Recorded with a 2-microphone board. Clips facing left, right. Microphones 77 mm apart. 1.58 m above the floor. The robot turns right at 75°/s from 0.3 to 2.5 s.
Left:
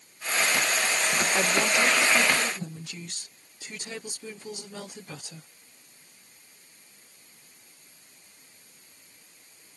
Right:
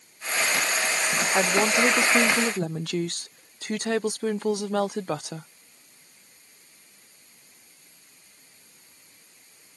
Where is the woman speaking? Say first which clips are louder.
Right 5 dB; 165° right; by 5.5 s 75° right.